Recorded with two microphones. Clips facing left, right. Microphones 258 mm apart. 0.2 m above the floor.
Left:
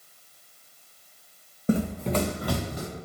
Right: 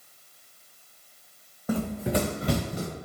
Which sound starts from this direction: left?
Running footsteps, at 1.7 s.